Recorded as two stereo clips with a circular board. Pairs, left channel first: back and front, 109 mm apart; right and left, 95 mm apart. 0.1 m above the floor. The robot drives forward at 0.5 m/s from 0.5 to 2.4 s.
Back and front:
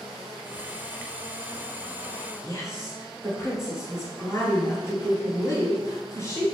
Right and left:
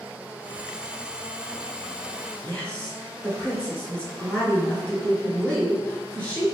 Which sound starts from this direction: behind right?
A woman speaking, at 2.4 s.